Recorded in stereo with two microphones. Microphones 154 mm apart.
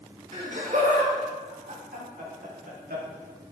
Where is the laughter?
50° right (ahead or behind), 2.5 m; by 3.0 s 75° right (ahead or behind), 3.5 m.